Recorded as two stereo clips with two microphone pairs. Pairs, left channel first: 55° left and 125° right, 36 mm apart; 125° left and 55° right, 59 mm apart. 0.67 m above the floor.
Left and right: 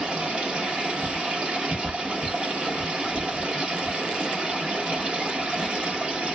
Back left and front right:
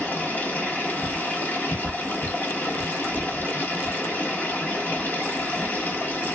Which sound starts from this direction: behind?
Running water, at 0.0 s.